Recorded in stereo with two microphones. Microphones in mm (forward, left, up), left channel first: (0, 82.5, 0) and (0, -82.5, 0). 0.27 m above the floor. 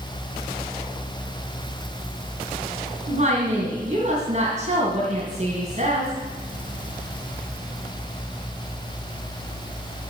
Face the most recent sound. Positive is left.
turn(degrees=-45)  # may be behind; listen again after turning